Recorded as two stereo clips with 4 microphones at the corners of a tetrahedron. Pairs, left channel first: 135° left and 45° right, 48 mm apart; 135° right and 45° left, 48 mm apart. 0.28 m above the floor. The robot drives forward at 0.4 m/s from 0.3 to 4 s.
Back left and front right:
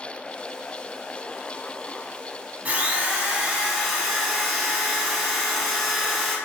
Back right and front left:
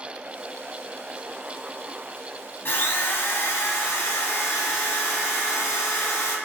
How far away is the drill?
About 0.8 m.